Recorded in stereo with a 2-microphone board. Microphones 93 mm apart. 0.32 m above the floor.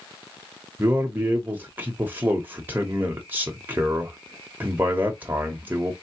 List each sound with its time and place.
0.8 s a man speaking: 20° right (ahead or behind), 1.0 m